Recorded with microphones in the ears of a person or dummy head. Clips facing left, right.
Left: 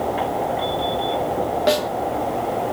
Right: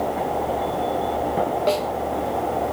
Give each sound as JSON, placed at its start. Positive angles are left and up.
{"t": 1.7, "sound": "a snare drum", "side_deg": 15, "distance_m": 0.8}